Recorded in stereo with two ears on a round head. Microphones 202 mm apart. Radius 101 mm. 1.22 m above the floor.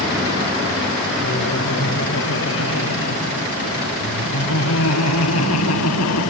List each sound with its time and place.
1.2 s laughter: 55° left (ahead or behind); by 6.3 s 80° left